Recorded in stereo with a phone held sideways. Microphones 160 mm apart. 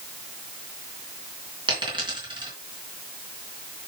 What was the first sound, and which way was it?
A dropped coin, 30° right (ahead or behind).